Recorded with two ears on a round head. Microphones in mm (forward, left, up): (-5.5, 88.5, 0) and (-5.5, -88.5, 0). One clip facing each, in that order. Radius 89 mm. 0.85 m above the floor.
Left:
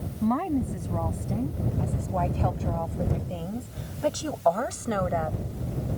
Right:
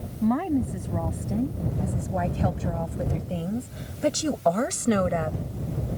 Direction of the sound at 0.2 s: 5° right (ahead or behind).